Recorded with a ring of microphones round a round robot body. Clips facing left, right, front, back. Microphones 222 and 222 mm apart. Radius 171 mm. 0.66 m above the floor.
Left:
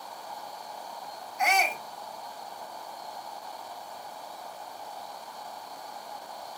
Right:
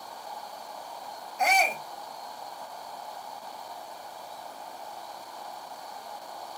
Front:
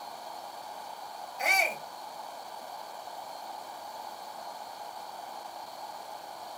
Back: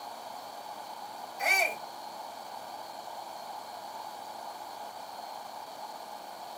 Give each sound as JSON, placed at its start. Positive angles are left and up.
{"t": 1.4, "sound": "a shout", "azimuth_deg": -50, "distance_m": 1.5}